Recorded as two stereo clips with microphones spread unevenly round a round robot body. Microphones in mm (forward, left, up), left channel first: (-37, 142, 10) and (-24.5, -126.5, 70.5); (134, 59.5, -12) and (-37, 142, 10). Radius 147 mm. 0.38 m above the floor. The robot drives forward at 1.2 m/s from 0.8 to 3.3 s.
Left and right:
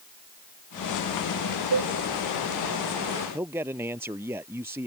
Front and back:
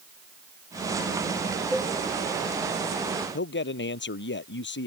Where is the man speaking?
5° right.